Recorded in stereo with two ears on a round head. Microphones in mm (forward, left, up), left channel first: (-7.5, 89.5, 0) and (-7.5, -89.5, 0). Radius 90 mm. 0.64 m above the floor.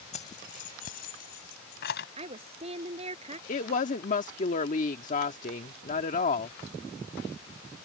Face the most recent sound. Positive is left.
turn(degrees=40)  # may be behind; listen again after turning